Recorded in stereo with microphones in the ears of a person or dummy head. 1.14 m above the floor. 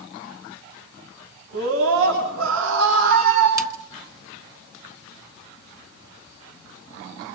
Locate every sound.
1.5 s a scream: 85° right, 9 m; by 3.5 s 80° right, 8.5 m
3.6 s a snare drum: 5° right (ahead or behind), 1.3 m